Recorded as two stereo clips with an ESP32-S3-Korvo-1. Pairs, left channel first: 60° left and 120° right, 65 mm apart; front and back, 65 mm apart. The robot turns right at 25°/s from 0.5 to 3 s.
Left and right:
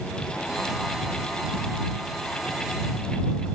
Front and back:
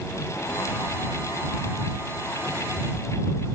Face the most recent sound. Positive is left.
No sound to turn to.